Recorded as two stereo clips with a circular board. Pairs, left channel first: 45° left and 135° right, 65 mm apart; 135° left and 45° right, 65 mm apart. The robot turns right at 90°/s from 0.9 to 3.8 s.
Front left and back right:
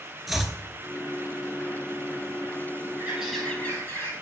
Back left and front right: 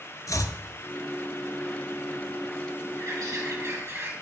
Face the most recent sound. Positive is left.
turn(degrees=-5)